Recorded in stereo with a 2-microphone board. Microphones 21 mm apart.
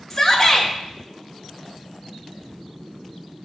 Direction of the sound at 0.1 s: 20° left (ahead or behind).